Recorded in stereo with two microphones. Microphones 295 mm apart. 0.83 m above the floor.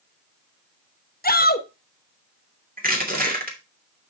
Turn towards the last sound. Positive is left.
turn(degrees=-30)  # may be behind; listen again after turning